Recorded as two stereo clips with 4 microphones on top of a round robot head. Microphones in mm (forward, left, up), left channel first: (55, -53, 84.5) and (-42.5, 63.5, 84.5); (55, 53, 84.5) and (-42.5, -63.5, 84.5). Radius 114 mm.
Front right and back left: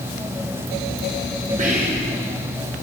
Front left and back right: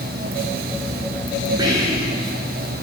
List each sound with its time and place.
1.6 s whispering: 165° left, 3 m